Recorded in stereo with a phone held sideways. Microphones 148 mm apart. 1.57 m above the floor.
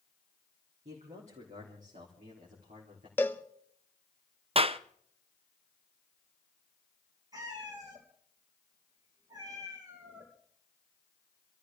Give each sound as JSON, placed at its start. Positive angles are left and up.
{"t": 0.8, "sound": "a man speaking", "side_deg": -50, "distance_m": 3.0}
{"t": 3.2, "sound": "a cowbell", "side_deg": 15, "distance_m": 0.7}
{"t": 4.5, "sound": "a clap", "side_deg": -40, "distance_m": 0.5}
{"t": 7.3, "sound": "a cat meowing", "side_deg": -25, "distance_m": 3.0}